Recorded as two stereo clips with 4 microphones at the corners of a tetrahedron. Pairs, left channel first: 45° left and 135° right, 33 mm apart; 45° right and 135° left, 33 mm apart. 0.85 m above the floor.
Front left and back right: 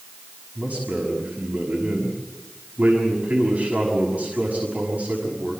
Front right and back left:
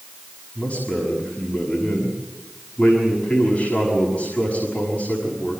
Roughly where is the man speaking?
Right.